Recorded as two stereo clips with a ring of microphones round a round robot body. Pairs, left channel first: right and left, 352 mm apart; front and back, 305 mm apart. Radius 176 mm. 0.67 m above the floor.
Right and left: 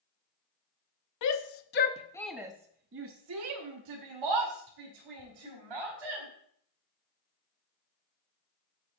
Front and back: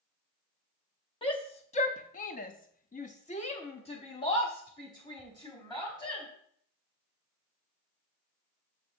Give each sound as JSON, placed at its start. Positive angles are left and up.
{"t": 1.2, "sound": "a shout", "azimuth_deg": -70, "distance_m": 0.8}